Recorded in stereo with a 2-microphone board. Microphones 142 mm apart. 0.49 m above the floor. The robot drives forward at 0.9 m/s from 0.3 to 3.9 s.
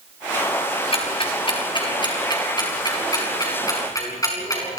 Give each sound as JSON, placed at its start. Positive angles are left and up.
{"t": 0.9, "sound": "ticking", "side_deg": 40, "distance_m": 4.0}